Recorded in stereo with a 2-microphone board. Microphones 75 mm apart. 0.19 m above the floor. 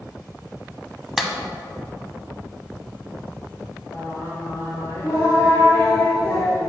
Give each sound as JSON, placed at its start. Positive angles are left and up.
{"t": 1.2, "sound": "a clap", "side_deg": -5, "distance_m": 0.8}
{"t": 3.9, "sound": "singing", "side_deg": 40, "distance_m": 2.5}